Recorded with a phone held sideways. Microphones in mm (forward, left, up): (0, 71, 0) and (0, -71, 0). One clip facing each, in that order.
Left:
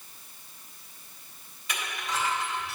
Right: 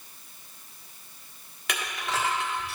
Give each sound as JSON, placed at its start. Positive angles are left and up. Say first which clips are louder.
{"t": 1.7, "sound": "crushing", "louder": "right 2 dB", "side_deg": -70, "distance_m": 1.6}